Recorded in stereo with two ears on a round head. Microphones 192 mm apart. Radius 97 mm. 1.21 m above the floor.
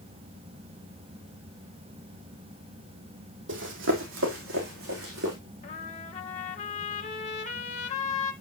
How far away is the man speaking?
No man speaking in this recording.